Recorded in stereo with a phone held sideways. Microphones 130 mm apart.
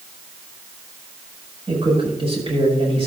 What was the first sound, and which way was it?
A man speaking, 45° right (ahead or behind).